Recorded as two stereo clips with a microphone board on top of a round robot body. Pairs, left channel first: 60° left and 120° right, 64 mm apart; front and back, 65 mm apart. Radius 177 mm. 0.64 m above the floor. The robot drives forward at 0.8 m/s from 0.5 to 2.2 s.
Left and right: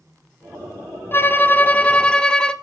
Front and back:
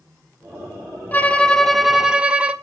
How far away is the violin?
About 1.4 m.